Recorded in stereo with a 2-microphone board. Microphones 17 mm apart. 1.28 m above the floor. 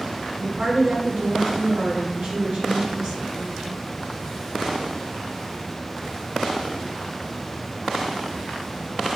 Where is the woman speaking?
55° right (ahead or behind), 2 m.